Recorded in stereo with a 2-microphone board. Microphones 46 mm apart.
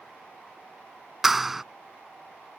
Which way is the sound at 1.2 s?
5° right (ahead or behind).